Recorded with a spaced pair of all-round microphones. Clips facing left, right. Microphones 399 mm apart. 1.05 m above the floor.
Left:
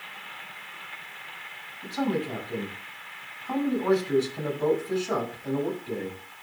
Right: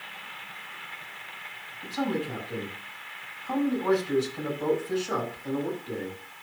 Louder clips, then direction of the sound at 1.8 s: Left 2 dB; 40° left (ahead or behind).